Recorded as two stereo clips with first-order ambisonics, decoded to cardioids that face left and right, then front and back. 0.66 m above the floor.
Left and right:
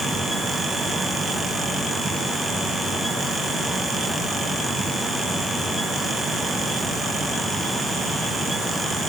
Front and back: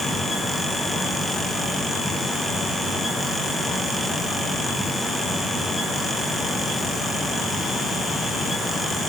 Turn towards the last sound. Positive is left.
No sound to turn to.